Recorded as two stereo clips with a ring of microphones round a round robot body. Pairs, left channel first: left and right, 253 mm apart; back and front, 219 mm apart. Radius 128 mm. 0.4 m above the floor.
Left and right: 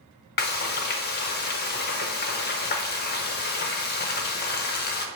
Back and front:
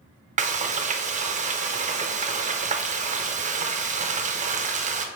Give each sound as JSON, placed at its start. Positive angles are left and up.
{"t": 0.4, "sound": "frying", "azimuth_deg": 50, "distance_m": 0.6}